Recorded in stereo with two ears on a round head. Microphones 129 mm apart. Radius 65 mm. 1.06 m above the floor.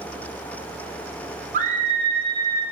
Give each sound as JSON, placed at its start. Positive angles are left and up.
{"t": 1.5, "sound": "a scream", "side_deg": -55, "distance_m": 2.0}